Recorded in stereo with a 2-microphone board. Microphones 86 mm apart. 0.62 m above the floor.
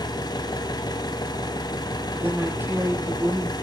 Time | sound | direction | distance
0.0 | an engine running | 55° left (ahead or behind) | 1.0 m
2.1 | a woman speaking | 25° right (ahead or behind) | 1.5 m